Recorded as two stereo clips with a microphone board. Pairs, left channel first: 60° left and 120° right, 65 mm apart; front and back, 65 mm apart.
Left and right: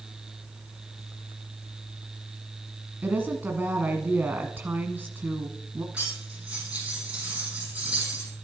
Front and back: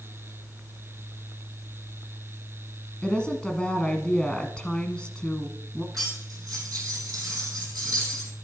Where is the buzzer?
I don't hear a buzzer.